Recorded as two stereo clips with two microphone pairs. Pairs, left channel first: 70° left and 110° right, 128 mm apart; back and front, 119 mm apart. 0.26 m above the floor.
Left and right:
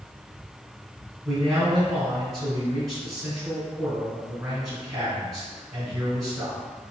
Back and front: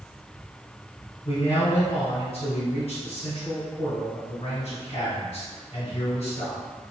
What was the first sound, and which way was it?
A man speaking, 170° right.